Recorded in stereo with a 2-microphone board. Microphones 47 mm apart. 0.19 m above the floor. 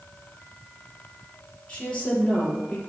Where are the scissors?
I don't hear scissors.